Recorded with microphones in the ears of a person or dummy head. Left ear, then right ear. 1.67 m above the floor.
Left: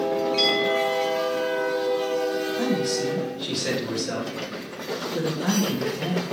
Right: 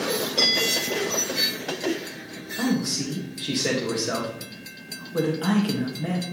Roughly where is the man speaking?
Centre.